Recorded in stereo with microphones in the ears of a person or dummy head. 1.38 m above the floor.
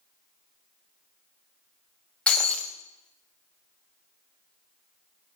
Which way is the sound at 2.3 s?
10° left (ahead or behind).